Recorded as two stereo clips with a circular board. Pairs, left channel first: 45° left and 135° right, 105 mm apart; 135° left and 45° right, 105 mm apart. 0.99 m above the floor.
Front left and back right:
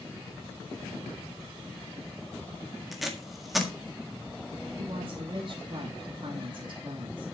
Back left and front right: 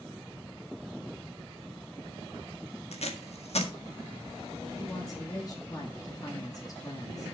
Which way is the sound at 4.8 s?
170° right.